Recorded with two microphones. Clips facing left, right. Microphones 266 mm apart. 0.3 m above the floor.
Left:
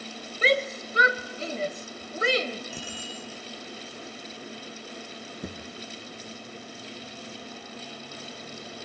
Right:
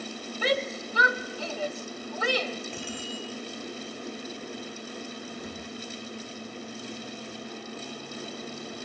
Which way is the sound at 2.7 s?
5° left (ahead or behind).